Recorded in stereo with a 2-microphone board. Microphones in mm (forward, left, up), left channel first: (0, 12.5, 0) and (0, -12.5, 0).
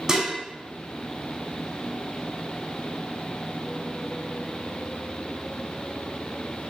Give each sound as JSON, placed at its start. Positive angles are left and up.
{"t": 0.1, "sound": "dishes clattering", "side_deg": -20, "distance_m": 0.7}